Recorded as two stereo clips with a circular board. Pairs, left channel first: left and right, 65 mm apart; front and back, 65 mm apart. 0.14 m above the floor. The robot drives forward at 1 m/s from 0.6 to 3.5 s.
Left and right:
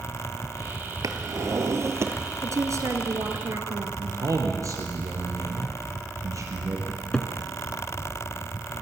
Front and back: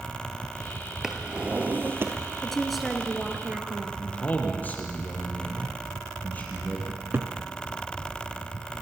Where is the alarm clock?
No alarm clock in this recording.